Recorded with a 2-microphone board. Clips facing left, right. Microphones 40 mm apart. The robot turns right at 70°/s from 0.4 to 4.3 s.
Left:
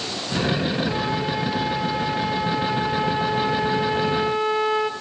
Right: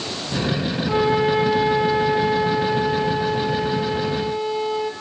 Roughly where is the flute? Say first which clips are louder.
Right 6 dB; behind right.